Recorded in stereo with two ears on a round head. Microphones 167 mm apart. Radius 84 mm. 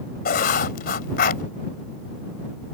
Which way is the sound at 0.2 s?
50° left (ahead or behind).